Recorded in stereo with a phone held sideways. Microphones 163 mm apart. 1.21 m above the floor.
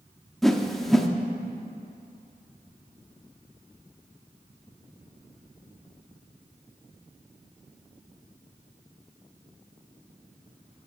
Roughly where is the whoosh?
Centre.